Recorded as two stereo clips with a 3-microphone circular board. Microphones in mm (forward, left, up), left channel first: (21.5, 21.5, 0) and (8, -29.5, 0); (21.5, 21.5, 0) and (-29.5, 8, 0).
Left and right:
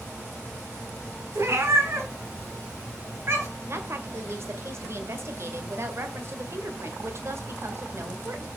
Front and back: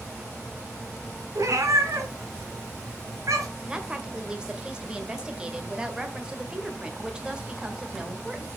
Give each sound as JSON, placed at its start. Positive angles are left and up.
{"t": 1.4, "sound": "a cat meowing", "azimuth_deg": -145, "distance_m": 1.7}
{"t": 3.7, "sound": "a woman speaking", "azimuth_deg": -95, "distance_m": 1.7}